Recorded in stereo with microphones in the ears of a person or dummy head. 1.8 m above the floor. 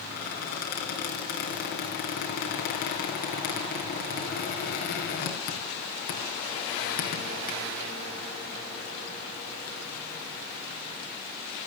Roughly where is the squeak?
Left.